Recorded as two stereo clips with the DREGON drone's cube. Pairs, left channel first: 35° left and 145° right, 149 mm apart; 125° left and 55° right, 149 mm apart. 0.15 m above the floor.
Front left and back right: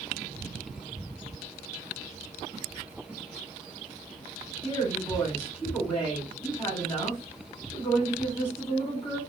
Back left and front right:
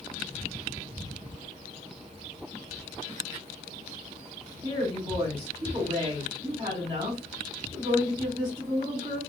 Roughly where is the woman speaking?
Ahead.